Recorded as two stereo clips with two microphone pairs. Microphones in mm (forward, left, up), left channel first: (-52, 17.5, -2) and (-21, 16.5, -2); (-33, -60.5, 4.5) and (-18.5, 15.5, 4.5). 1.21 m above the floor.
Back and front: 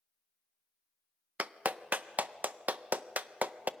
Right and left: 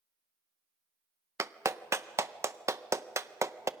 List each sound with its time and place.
1.4 s a clap: 25° left, 0.5 m